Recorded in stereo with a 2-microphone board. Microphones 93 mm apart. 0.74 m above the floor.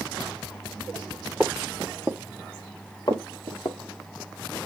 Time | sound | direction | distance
1.4 | footsteps | 5° right (ahead or behind) | 1.0 m
3.1 | footsteps | 45° left (ahead or behind) | 1.0 m